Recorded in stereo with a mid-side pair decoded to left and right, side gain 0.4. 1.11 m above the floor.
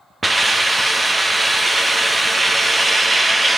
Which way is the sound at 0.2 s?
20° right.